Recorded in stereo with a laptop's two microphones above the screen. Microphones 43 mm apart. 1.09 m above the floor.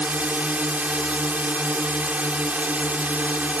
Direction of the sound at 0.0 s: 40° right (ahead or behind).